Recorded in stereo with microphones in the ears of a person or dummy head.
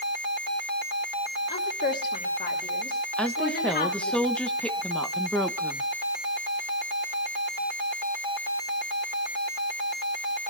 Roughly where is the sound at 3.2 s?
Centre.